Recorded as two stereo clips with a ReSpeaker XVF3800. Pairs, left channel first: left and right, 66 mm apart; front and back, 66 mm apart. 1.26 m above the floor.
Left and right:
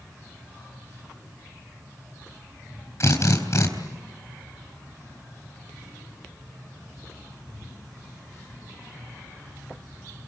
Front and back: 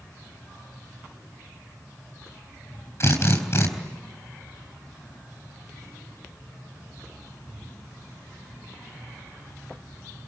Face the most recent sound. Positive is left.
turn(degrees=45)